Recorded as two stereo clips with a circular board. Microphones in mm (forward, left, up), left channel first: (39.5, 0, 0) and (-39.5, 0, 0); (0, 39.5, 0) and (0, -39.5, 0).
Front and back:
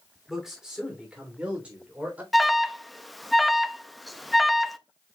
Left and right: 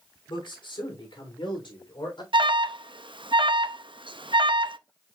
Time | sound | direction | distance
0.3 | a man speaking | 95° left | 3 m
2.3 | an alarm | 90° right | 0.5 m